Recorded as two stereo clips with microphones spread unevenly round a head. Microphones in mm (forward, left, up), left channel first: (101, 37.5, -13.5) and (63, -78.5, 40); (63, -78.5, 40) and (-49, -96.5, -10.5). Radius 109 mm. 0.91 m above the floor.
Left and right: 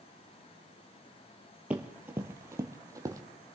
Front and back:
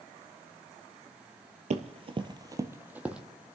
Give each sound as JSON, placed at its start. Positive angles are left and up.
{"t": 1.7, "sound": "running footsteps", "azimuth_deg": -145, "distance_m": 1.1}